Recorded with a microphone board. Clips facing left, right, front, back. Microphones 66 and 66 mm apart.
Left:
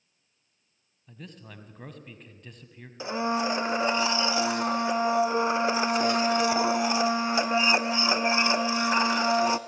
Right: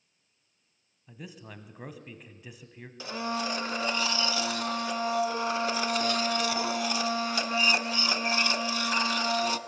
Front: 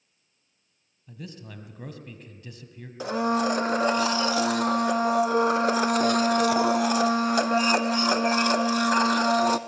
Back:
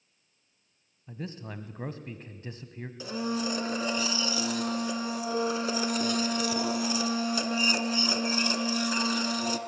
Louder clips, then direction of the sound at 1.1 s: Right 1 dB, back 3 dB; 165° right.